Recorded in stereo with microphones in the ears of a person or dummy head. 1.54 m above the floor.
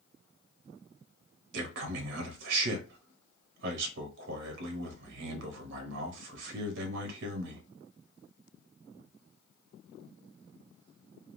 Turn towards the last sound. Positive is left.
turn(degrees=-70)  # may be behind; listen again after turning